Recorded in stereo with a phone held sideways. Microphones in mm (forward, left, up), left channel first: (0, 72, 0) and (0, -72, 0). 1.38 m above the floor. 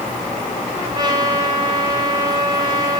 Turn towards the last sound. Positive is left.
turn(degrees=-30)  # may be behind; listen again after turning